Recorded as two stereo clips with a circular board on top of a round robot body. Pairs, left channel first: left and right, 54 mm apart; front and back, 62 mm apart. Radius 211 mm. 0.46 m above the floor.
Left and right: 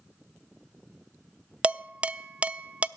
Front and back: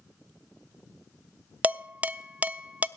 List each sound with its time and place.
1.6 s dishes clattering: 135° right, 0.6 m